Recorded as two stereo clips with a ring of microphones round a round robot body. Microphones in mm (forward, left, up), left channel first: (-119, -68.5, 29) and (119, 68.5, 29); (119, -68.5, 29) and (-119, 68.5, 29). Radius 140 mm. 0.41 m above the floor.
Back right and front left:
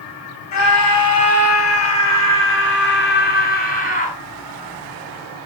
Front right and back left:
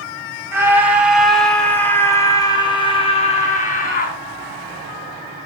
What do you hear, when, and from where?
0.5 s a scream: 130° right, 4.5 m; by 4.2 s 85° right, 4.5 m